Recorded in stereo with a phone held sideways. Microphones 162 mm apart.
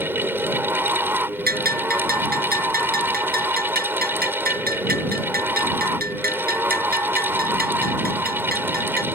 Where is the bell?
70° right (ahead or behind).